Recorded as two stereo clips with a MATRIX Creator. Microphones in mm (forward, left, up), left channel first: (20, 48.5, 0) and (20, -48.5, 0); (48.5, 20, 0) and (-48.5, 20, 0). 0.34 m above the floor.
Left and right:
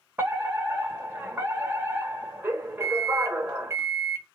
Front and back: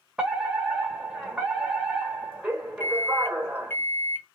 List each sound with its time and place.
0.2 s a fire alarm: 115° right, 1.9 m
2.8 s a microwave: 50° right, 1.1 m